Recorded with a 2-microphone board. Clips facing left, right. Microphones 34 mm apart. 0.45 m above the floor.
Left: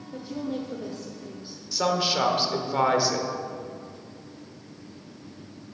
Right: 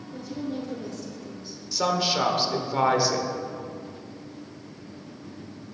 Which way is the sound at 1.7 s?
Centre (ahead or behind).